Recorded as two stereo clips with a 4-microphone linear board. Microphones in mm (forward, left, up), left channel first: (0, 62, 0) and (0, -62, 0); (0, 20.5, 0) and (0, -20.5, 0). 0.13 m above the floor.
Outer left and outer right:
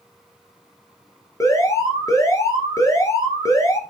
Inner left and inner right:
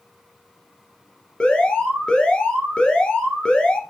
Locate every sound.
1.4 s an alarm: 25° left (ahead or behind), 1.8 m